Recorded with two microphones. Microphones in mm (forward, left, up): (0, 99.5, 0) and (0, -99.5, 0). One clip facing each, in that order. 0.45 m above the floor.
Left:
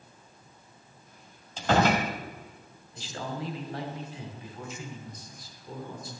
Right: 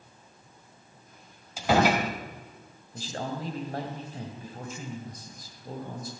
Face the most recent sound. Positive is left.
turn(degrees=-45)  # may be behind; listen again after turning